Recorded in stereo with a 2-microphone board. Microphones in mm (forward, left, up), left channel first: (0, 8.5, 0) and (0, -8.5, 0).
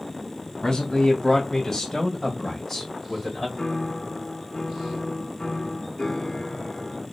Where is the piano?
40° left (ahead or behind), 0.6 m.